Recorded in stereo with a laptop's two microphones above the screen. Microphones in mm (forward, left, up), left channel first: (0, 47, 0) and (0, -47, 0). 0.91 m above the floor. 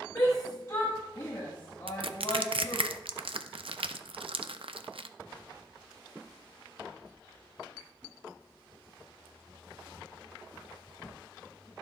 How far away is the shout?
About 1.1 m.